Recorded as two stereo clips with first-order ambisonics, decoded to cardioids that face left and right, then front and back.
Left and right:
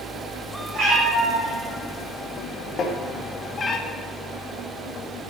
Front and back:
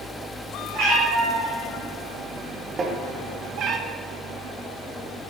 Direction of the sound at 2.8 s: 125° left.